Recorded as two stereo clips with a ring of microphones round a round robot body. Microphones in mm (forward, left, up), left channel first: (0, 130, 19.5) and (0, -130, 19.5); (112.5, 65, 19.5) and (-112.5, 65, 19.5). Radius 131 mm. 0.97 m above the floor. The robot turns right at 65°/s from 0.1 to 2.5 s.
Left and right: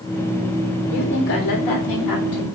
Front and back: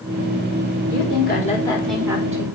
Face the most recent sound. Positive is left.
turn(degrees=130)